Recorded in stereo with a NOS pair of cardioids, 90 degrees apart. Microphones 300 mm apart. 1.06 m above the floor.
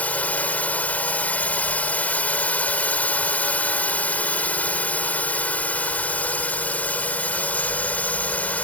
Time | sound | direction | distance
0.0 | a drone | 5° left | ?